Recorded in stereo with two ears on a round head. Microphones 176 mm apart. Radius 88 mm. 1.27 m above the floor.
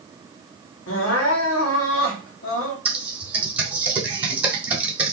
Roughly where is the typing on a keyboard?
Centre.